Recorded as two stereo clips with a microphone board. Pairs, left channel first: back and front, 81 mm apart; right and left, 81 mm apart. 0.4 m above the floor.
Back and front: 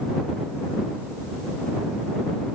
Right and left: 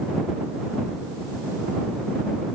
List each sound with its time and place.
Only background noise.